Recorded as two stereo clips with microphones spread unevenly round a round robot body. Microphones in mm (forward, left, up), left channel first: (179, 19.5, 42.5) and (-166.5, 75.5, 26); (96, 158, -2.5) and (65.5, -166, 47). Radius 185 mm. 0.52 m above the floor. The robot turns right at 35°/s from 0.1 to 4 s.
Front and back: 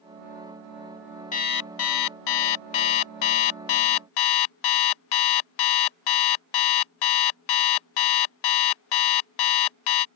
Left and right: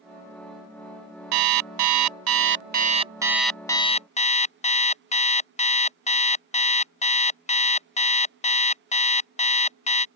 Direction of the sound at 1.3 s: 80° right.